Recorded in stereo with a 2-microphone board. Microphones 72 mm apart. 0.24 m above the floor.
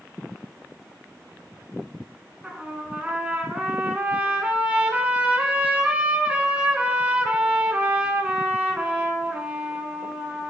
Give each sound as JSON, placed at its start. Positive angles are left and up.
{"t": 2.4, "sound": "a trumpet", "side_deg": -20, "distance_m": 1.0}